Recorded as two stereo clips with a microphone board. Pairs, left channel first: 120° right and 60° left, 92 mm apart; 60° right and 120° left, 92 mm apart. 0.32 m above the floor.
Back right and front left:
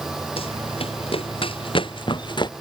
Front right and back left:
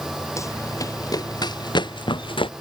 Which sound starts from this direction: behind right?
Running footsteps, at 0.4 s.